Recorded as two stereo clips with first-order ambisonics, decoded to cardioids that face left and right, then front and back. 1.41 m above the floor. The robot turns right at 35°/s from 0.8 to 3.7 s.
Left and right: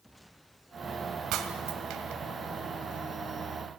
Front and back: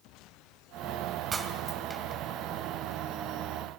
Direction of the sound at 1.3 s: 115° right.